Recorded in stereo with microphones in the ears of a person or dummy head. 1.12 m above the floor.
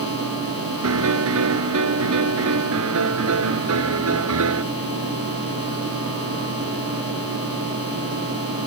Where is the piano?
70° right (ahead or behind).